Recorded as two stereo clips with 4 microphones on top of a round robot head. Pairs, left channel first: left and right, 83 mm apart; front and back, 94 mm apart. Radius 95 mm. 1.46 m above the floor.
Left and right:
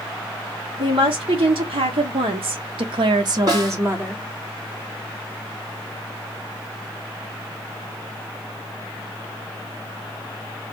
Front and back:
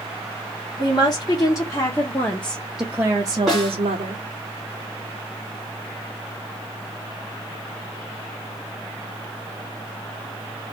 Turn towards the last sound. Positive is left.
turn(degrees=-95)